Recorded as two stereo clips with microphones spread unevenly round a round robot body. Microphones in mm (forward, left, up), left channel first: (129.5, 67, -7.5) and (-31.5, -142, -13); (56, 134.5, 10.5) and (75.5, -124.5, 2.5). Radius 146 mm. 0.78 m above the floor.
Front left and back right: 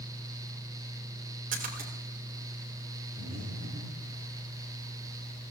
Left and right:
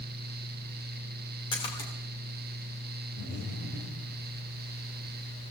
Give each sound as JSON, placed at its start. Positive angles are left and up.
{"t": 1.5, "sound": "a splash", "azimuth_deg": 170, "distance_m": 2.5}
{"t": 3.2, "sound": "breathing", "azimuth_deg": 150, "distance_m": 9.0}